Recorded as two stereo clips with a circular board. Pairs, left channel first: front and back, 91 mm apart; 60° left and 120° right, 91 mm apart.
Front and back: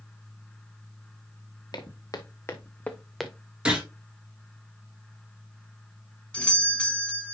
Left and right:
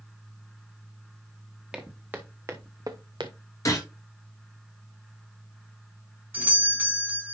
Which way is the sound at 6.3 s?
70° right.